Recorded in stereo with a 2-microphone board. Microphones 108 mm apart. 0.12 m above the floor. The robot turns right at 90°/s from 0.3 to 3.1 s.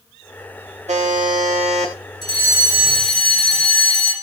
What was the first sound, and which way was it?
A buzzer, 85° right.